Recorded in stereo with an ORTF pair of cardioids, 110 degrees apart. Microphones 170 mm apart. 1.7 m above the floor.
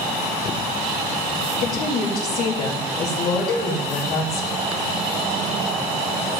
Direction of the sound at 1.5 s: 65° left.